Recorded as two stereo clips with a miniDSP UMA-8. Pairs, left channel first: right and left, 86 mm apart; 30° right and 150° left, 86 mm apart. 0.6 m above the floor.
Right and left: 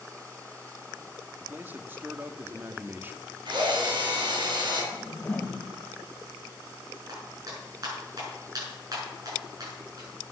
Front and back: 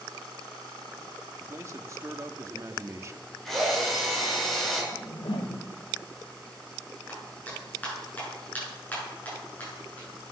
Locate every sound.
1.4 s a man speaking: 135° left, 0.9 m
3.5 s a drill: 60° left, 4 m
4.9 s a whoosh: 20° right, 1.1 m
7.1 s a clap: 40° left, 6.5 m